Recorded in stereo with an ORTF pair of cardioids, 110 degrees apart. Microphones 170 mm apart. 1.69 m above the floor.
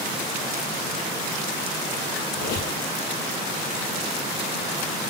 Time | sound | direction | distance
2.4 | a squeak | 65° left | 8.5 m